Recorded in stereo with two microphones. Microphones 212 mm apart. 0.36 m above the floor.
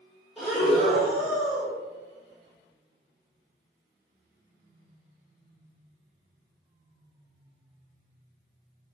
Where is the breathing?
Centre (ahead or behind), 1.4 m.